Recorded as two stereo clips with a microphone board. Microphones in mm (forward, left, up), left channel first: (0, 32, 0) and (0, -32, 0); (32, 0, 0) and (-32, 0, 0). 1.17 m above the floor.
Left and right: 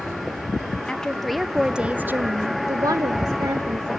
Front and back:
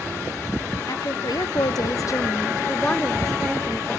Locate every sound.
0.9 s a woman speaking: 10° left, 0.9 m; by 4.0 s 100° right, 1.1 m